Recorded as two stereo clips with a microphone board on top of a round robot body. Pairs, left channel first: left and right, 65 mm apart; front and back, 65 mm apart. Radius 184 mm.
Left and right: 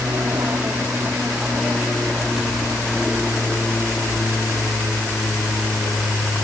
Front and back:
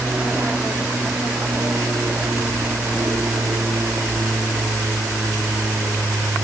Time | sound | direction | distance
0.0 | an aircraft | 125° right | ?